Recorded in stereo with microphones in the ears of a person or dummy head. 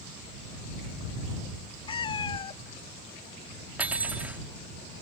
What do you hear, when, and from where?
1.9 s a cat meowing: 30° left (ahead or behind)
3.8 s cutlery clinking: 5° right (ahead or behind)